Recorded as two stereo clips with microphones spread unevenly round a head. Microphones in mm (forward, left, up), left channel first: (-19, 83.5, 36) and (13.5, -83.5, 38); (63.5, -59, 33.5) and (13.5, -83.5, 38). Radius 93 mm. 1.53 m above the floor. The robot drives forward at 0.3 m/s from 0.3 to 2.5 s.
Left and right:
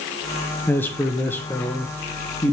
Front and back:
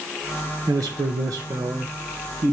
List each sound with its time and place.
0.7 s a man speaking: straight behind, 0.7 m